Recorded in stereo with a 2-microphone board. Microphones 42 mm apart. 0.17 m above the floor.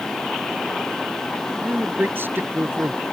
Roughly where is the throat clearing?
No throat clearing in this recording.